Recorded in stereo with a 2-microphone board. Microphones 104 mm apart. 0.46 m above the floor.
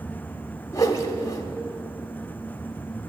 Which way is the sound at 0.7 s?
30° left (ahead or behind).